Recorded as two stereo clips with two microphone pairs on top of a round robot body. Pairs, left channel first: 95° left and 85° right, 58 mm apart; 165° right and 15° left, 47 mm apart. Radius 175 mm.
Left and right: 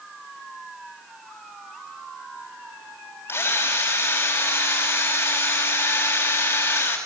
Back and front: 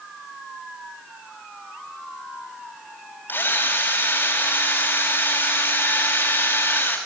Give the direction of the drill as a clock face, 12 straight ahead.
7 o'clock.